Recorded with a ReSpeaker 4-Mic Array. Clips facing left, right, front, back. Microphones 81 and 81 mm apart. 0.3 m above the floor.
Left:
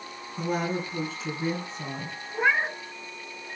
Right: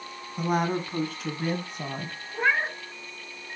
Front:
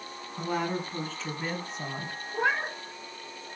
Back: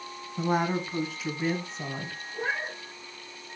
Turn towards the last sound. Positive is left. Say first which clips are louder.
# left 1 dB, front 4 dB
turn(degrees=10)